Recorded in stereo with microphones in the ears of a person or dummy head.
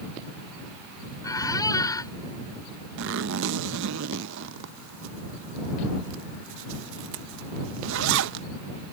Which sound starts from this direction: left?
A squeak, at 1.2 s.